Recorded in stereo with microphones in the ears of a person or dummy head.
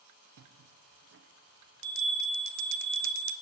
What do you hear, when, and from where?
0.4 s a bell: 65° right (ahead or behind), 0.6 m